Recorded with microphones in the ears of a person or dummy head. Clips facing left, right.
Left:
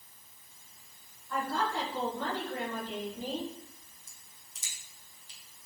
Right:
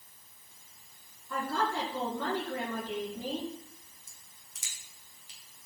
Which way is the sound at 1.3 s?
85° right.